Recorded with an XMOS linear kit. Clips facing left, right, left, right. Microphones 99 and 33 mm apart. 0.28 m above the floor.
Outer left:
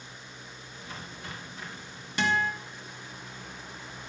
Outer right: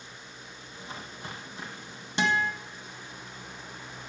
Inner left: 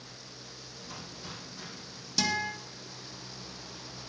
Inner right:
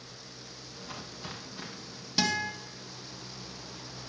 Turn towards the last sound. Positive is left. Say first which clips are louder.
# outer right 1 dB, inner right 1 dB
turn(degrees=-25)  # may be behind; listen again after turning